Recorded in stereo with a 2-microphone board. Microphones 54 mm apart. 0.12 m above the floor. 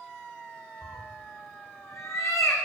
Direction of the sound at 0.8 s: 80° left.